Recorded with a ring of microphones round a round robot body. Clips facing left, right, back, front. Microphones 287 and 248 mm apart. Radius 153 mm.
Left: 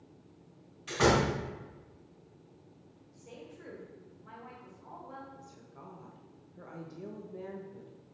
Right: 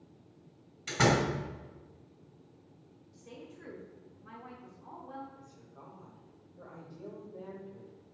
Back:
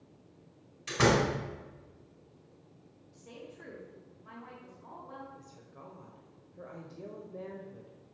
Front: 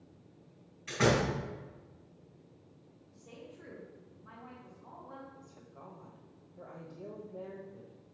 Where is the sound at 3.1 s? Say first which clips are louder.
Even, back 2 dB; 140° right, 1.8 m.